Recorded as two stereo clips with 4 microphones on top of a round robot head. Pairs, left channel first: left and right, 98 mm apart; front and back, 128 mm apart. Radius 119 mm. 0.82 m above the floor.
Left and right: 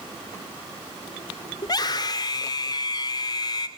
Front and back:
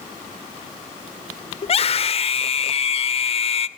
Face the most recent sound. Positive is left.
turn(degrees=35)